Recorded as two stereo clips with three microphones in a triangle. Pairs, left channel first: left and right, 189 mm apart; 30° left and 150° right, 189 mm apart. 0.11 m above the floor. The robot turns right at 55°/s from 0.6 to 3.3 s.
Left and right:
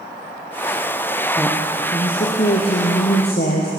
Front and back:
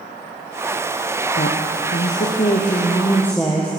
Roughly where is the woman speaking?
Ahead.